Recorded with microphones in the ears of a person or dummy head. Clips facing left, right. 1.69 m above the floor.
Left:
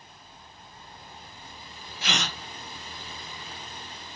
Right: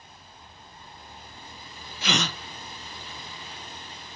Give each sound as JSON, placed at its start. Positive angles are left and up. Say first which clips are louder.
{"t": 2.0, "sound": "a gasp", "louder": "right 4 dB", "side_deg": -70, "distance_m": 0.6}